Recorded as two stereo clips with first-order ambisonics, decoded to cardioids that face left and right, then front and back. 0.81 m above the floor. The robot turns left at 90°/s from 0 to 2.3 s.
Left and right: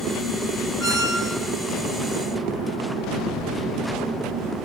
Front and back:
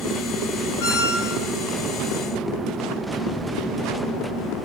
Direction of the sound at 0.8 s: Straight ahead.